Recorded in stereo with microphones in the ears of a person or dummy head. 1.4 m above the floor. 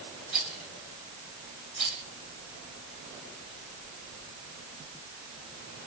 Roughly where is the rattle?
Centre.